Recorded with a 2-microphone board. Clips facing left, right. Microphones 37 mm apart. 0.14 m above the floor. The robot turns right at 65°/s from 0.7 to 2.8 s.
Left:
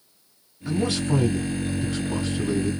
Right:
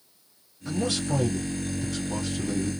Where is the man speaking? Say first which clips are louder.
Left 3 dB; 15° left, 1.5 m; by 2.7 s 145° left, 1.5 m.